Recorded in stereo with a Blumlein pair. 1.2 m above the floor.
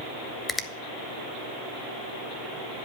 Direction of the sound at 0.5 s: 10° left.